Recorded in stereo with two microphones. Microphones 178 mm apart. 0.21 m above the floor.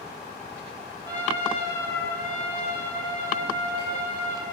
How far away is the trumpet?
About 7.5 m.